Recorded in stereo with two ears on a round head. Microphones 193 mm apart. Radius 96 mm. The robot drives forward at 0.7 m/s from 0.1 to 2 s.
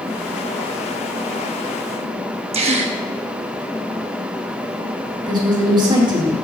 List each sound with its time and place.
2.5 s a gasp: 30° right (ahead or behind), 1.0 m
5.3 s a woman speaking: 20° right (ahead or behind), 3 m